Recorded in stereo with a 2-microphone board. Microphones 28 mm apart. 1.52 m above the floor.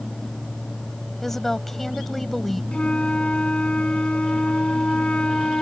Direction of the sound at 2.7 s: 40° left (ahead or behind).